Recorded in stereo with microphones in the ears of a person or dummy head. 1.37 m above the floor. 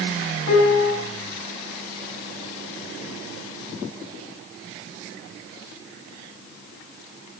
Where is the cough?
I don't hear a cough.